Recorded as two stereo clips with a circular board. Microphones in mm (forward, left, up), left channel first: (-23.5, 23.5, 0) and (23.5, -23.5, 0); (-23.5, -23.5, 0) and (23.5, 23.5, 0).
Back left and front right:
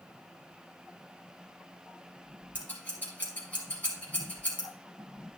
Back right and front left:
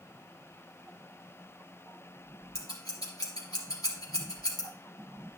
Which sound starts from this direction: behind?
Scissors, at 2.5 s.